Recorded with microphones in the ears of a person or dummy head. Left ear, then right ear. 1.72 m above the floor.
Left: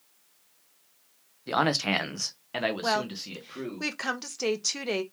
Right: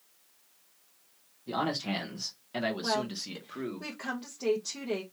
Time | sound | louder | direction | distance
1.5 | a man speaking | left 7 dB | 65° left (ahead or behind) | 0.8 m
2.8 | a woman speaking | left 3 dB | 70° left (ahead or behind) | 0.8 m